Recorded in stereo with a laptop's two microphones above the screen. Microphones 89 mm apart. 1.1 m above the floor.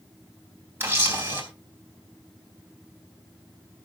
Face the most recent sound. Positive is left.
turn(degrees=-25)  # may be behind; listen again after turning